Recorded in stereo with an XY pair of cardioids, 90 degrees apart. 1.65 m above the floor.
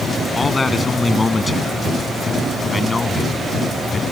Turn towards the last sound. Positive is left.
turn(degrees=30)